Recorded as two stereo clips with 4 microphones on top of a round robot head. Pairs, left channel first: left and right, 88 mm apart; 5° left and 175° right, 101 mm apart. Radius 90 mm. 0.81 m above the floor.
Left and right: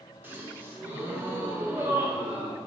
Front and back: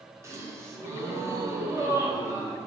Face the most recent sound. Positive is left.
turn(degrees=-140)